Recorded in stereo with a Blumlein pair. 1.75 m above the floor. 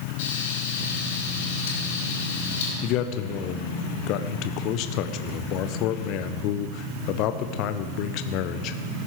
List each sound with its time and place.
0.2 s frying: 55° left, 5 m
2.8 s a man speaking: 40° left, 1.1 m